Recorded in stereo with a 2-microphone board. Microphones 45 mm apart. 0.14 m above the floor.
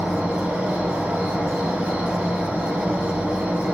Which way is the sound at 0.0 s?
45° right (ahead or behind).